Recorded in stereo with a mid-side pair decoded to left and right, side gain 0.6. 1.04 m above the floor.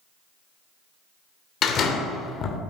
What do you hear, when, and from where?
1.6 s a door slam: 50° left, 2 m